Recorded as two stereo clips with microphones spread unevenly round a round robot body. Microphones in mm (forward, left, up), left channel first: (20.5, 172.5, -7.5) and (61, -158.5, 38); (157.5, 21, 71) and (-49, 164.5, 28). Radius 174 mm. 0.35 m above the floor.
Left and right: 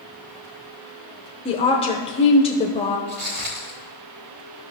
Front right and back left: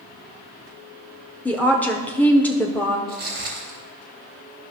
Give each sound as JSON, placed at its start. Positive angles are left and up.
{"t": 1.4, "sound": "a woman speaking", "azimuth_deg": 60, "distance_m": 0.9}
{"t": 3.1, "sound": "footsteps", "azimuth_deg": -135, "distance_m": 3.5}